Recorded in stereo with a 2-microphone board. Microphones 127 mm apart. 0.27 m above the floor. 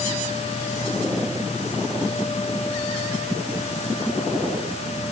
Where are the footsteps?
I don't hear footsteps.